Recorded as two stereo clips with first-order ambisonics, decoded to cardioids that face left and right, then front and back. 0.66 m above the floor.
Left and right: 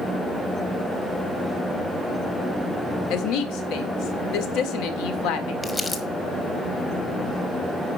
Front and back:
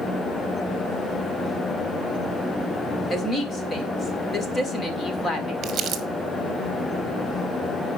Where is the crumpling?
155° left, 1.2 m.